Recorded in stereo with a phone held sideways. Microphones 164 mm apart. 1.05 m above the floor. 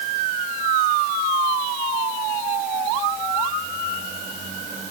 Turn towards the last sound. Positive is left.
No sound to turn to.